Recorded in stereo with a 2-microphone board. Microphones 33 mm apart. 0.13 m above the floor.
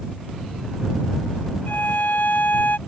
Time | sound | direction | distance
1.7 | a violin | 70° left (ahead or behind) | ?